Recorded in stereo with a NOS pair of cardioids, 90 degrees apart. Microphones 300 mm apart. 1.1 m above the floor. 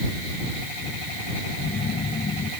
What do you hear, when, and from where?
1.6 s a phone buzzing: 35° left